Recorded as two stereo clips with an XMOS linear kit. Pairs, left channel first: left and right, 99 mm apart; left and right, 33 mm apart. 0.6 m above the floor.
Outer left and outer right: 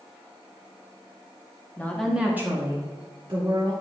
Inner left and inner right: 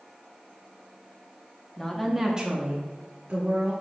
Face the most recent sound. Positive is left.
turn(degrees=-60)  # may be behind; listen again after turning